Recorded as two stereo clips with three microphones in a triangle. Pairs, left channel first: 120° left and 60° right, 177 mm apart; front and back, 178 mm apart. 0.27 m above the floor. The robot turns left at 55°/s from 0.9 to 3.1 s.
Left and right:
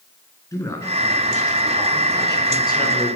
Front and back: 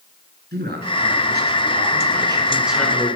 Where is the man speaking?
170° right, 4 m; by 3.2 s 70° left, 4 m.